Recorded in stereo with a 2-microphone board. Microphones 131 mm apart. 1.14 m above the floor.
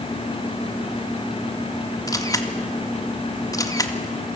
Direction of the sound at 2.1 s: 25° left (ahead or behind).